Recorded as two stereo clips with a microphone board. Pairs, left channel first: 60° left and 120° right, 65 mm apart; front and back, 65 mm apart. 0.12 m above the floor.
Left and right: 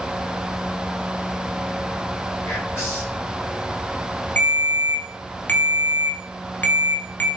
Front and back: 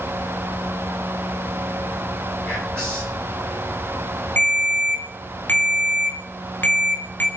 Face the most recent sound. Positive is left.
turn(degrees=30)